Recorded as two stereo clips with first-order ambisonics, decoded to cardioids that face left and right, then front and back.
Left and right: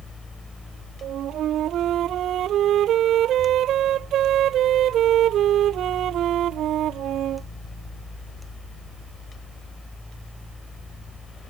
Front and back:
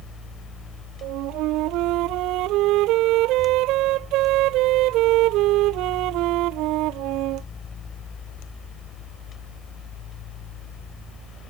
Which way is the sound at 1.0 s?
145° right.